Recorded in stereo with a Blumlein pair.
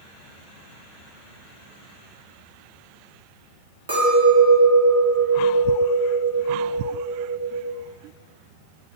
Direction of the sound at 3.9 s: 60° right.